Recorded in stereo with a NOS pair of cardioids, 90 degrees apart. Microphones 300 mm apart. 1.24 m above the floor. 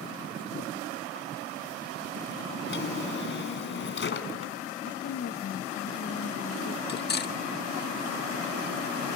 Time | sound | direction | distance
2.7 | a drawer | 45° left | 3.5 m
4.8 | a woman speaking | 50° left | 1.5 m
6.9 | cutlery clinking | 35° left | 1.4 m